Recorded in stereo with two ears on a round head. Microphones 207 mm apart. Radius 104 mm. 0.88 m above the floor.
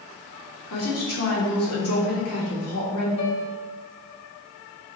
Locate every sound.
0.7 s a woman speaking: 70° left (ahead or behind), 2.5 m
3.2 s a piano: 75° left (ahead or behind), 2.5 m